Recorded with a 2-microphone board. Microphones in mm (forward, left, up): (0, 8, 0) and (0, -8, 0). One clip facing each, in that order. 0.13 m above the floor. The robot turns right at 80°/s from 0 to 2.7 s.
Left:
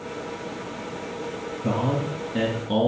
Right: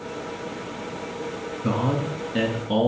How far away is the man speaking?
About 2.0 m.